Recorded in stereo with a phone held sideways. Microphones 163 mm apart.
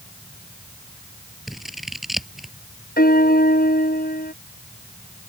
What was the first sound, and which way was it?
Scissors, centre (ahead or behind).